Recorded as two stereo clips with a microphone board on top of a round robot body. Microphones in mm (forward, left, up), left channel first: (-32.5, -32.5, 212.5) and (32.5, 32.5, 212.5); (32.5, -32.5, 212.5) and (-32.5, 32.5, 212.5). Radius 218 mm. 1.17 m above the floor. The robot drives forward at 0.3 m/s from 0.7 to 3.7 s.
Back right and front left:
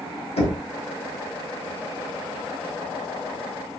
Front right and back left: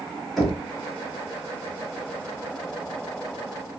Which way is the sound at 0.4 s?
135° right.